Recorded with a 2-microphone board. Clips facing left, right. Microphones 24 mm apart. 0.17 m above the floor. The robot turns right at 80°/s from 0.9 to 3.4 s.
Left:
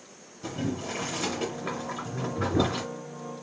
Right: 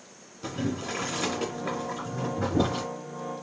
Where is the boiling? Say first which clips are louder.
Right 1 dB; 25° right (ahead or behind), 1.8 m; by 2.9 s 40° left (ahead or behind), 1.8 m.